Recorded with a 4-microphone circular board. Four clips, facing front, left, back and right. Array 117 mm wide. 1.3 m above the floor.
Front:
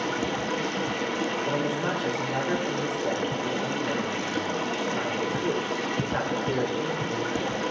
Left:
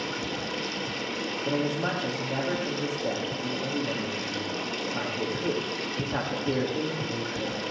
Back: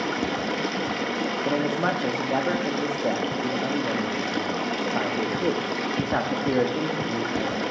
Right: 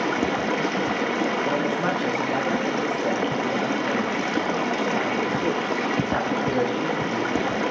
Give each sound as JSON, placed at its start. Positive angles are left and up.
{"t": 0.0, "sound": "running water", "azimuth_deg": -100, "distance_m": 0.9}
{"t": 1.4, "sound": "a man speaking", "azimuth_deg": -160, "distance_m": 2.5}